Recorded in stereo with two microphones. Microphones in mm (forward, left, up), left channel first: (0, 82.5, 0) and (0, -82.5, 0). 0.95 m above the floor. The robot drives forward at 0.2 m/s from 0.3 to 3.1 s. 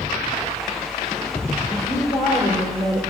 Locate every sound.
1.7 s a woman speaking: 15° left (ahead or behind), 3.5 m